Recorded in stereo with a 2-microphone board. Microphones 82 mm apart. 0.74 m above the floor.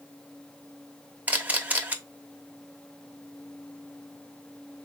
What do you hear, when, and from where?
1.3 s a camera shutter: 20° right (ahead or behind), 0.9 m